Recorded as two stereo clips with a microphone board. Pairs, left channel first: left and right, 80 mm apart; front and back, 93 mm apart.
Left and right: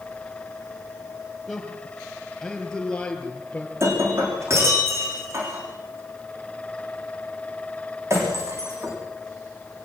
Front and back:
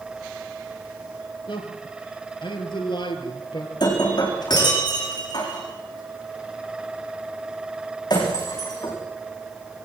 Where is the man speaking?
5° left, 4.5 m; by 3.7 s 20° left, 3.5 m.